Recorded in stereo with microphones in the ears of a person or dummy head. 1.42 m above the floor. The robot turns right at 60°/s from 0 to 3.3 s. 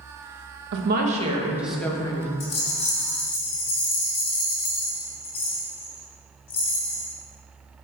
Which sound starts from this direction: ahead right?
A woman speaking, at 0.7 s.